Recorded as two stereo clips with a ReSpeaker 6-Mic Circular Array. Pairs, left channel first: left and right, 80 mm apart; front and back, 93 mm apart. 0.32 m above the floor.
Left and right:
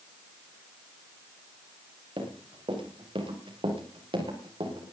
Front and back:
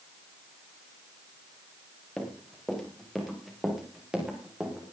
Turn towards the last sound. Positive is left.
turn(degrees=-100)